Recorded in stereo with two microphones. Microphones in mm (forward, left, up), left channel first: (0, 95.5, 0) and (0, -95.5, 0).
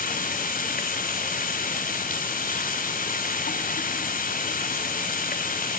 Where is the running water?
50° left (ahead or behind), 2 m.